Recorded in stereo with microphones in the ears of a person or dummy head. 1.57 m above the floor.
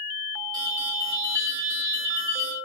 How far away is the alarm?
About 7.5 m.